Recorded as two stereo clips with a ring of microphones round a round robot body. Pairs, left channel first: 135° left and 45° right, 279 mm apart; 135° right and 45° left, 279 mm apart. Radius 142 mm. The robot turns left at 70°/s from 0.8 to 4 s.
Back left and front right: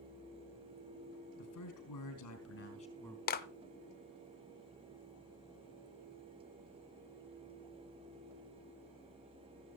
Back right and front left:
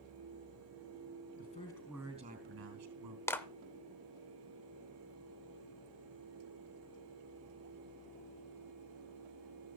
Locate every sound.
1.4 s a man speaking: 170° left, 4 m; by 3.2 s 45° left, 4 m
3.3 s a clap: 150° left, 0.7 m; by 3.5 s 140° left, 0.7 m